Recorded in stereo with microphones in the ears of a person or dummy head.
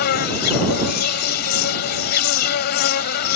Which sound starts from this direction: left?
An insect, at 0.0 s.